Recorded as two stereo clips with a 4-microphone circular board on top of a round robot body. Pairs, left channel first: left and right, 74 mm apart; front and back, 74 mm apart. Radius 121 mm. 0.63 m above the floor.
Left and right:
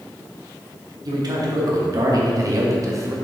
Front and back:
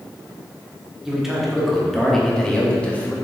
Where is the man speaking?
95° right, 2 m; by 3.1 s 65° right, 1.6 m.